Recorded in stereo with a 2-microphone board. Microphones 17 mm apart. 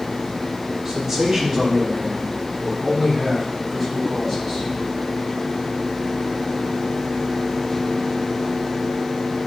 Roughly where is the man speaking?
Right.